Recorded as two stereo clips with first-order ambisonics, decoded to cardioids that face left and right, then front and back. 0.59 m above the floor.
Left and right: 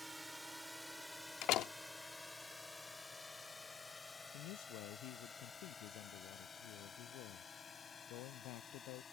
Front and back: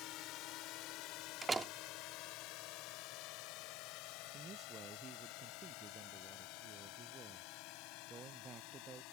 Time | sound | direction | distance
0.0 | a drone | 10° right | ?
1.4 | a door slam | 110° left | ?
4.3 | a man speaking | 115° left | ?